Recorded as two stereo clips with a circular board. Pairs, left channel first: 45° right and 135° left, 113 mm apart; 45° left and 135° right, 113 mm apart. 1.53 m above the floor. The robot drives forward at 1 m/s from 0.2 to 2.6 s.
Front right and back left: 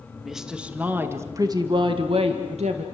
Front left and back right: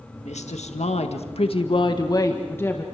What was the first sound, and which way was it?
A woman speaking, 45° left.